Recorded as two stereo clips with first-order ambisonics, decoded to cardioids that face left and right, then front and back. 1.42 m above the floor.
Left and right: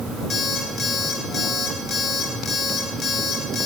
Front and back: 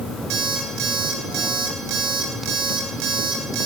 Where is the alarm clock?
150° left, 3 m.